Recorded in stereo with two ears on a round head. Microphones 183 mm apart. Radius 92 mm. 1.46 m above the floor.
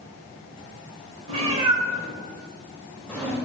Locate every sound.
1.3 s a cat meowing: 30° right (ahead or behind), 1.3 m; by 3.4 s 10° left (ahead or behind), 1.3 m